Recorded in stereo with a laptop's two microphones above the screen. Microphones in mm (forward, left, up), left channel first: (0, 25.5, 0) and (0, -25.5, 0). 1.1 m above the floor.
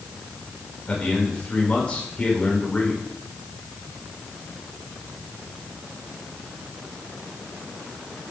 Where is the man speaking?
20° left (ahead or behind), 4 m.